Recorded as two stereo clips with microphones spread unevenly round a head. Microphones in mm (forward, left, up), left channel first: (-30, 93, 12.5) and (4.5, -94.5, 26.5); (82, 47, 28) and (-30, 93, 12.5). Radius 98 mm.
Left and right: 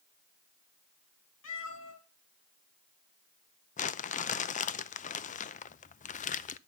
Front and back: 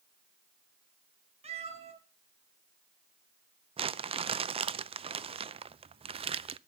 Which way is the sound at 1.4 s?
120° left.